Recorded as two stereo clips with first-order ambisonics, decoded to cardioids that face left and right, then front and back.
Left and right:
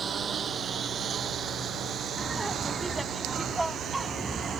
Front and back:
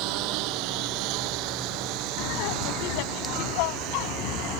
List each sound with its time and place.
0.0 s a lawn mower: 155° right; by 4.6 s 145° right
2.2 s laughter: 5° right